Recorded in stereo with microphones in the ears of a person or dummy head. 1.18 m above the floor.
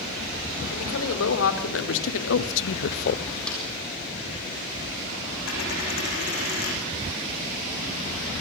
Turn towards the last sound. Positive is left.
turn(degrees=60)  # may be behind; listen again after turning